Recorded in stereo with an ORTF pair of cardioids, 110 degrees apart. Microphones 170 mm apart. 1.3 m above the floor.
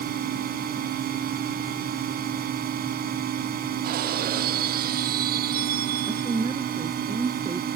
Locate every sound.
0.0 s a drone: 65° right
3.8 s breaking glass: 65° right
6.1 s a woman speaking: 20° right